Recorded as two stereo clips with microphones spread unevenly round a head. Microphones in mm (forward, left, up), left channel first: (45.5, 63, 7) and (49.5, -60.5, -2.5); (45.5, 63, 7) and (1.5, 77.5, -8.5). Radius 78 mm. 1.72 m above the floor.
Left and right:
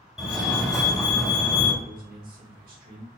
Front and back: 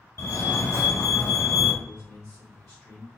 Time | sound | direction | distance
0.2 | a fire alarm | straight ahead | 1.6 m
1.8 | a man speaking | 85° right | 1.5 m